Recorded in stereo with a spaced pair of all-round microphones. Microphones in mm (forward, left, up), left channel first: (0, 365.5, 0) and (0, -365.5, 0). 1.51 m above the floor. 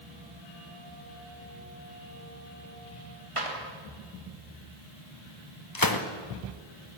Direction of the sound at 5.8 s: 30° left (ahead or behind).